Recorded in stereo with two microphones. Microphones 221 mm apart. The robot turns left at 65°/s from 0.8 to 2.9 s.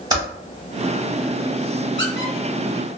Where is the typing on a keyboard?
20° right (ahead or behind), 1.1 m.